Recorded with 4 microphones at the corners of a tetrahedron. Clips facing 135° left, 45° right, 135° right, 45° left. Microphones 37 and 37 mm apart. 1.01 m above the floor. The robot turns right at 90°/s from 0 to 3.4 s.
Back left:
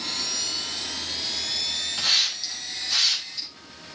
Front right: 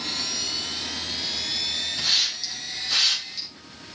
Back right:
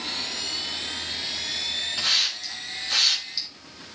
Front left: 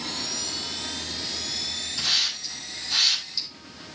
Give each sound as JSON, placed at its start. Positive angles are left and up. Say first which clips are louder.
{"t": 2.0, "sound": "a hiss", "louder": "back left 2 dB, even", "azimuth_deg": 175, "distance_m": 5.0}